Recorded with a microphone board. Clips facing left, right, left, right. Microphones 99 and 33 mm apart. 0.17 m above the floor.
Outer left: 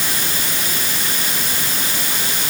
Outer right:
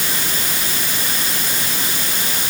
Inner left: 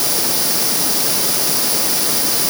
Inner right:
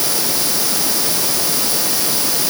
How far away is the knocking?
No knocking in this recording.